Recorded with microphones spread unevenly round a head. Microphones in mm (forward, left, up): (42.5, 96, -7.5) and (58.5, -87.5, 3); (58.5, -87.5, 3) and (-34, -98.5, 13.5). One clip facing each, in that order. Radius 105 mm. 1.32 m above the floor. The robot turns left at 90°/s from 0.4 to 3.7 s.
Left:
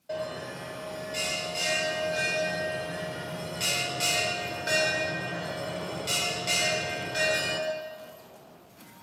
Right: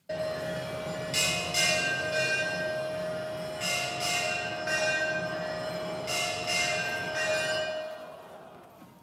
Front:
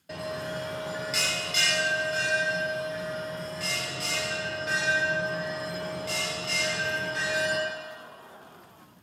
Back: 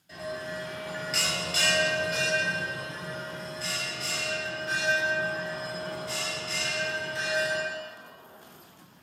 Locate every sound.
0.1 s a bell: 15° right, 1.0 m; by 7.6 s 50° left, 1.0 m